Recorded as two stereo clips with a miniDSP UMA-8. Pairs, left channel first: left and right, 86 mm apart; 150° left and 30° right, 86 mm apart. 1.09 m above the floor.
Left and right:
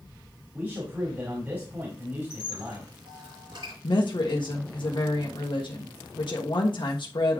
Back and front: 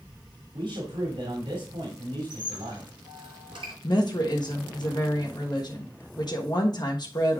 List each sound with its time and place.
0.5 s a man speaking: 25° right, 2.5 m
2.3 s a squeak: 55° right, 5.5 m
3.8 s a woman speaking: 115° left, 1.3 m